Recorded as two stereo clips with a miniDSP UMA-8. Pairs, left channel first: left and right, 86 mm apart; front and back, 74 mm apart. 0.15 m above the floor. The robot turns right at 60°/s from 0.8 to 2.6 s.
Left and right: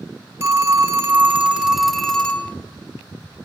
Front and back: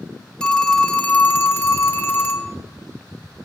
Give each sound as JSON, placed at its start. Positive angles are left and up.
{"t": 0.4, "sound": "a phone ringing", "azimuth_deg": -70, "distance_m": 0.7}